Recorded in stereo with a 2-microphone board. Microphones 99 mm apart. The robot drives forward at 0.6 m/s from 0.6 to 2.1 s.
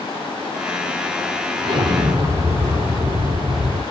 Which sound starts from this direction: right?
An explosion, at 1.6 s.